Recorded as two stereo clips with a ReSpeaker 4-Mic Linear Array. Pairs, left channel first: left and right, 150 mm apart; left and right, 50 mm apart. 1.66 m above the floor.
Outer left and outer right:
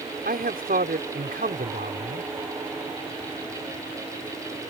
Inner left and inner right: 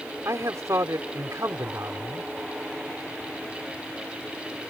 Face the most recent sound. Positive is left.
turn(degrees=-85)